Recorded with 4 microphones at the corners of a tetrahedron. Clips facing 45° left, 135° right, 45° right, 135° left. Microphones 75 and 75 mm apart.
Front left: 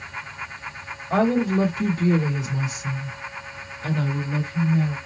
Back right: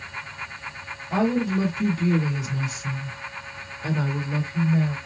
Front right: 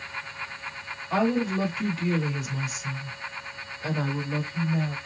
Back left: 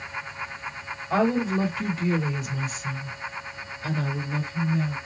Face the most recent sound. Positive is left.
turn(degrees=-85)